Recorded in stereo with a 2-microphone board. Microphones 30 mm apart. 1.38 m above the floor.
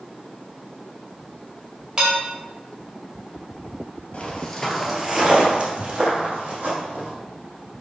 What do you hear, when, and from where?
2.0 s dishes clattering: 30° right (ahead or behind), 1.9 m
4.1 s footsteps: 35° left (ahead or behind), 1.6 m; by 7.1 s 60° right (ahead or behind), 4 m